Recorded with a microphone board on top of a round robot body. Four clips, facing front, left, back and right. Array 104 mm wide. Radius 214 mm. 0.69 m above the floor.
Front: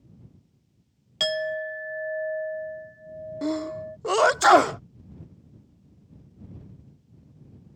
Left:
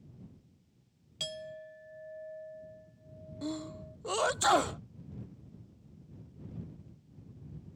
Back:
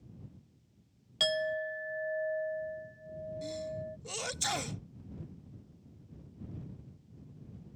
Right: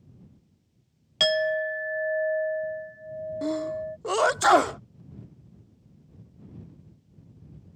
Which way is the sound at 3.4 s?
25° right.